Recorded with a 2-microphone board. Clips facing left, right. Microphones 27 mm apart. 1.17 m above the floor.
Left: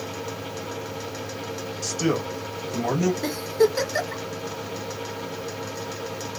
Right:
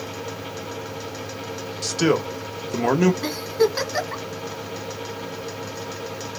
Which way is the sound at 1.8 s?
85° right.